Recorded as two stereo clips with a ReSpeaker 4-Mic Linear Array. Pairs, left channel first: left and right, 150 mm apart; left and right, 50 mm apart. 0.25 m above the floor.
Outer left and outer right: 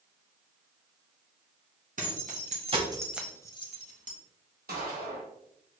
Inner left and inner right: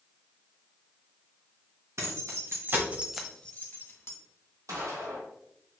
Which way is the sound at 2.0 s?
65° right (ahead or behind).